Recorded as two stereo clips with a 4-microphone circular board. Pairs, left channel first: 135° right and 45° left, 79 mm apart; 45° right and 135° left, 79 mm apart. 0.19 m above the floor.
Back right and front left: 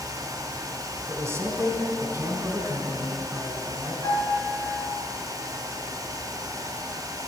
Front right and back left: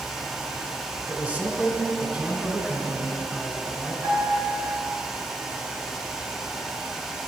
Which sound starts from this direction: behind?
A piano, at 4.0 s.